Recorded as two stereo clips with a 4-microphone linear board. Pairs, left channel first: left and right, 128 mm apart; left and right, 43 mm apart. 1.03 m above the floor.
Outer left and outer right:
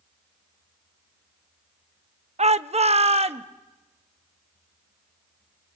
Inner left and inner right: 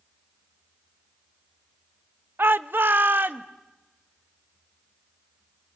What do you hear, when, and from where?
2.4 s a shout: 60° right (ahead or behind), 0.6 m; by 3.5 s 55° right (ahead or behind), 1.2 m